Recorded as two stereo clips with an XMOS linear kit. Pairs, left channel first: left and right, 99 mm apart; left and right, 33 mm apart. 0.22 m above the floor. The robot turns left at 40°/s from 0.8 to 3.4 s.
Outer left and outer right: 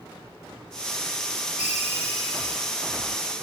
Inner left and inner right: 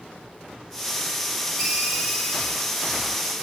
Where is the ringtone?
10° right, 1.8 m; by 2.8 s 55° right, 1.8 m.